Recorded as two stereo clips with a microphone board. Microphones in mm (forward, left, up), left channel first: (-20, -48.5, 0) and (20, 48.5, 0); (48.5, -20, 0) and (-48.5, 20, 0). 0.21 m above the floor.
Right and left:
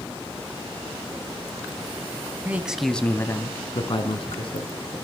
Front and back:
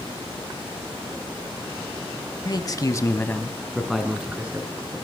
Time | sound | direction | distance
2.5 | a man speaking | straight ahead | 1.4 m